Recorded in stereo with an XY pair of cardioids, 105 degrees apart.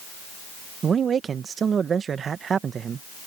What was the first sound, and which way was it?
A man speaking, 45° right.